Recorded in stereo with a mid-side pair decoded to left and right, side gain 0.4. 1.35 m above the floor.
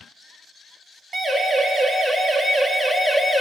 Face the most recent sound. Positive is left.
turn(degrees=5)